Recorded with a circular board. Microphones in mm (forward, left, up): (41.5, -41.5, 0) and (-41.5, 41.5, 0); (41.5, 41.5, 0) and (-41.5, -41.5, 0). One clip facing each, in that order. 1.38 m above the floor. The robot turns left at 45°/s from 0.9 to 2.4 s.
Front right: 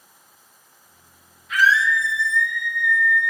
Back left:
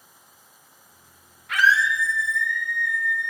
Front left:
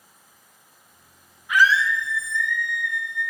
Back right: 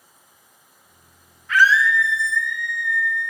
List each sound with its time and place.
1.5 s a scream: 120° left, 2.5 m; by 3.3 s 80° left, 2.5 m